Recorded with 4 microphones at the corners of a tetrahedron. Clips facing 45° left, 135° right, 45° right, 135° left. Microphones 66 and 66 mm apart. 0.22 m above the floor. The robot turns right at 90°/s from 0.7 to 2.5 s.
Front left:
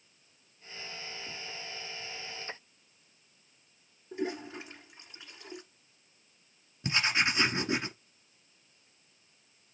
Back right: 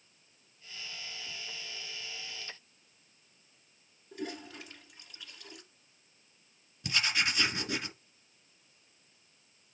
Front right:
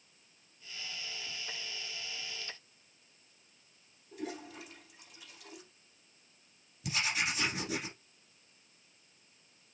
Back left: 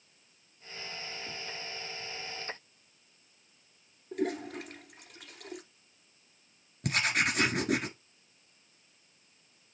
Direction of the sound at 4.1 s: 110° left.